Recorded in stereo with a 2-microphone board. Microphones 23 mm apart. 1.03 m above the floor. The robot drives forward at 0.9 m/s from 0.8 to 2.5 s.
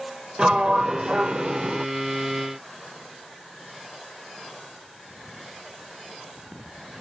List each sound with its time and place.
0.4 s a sliding door: 35° right (ahead or behind); by 1.9 s 55° right (ahead or behind)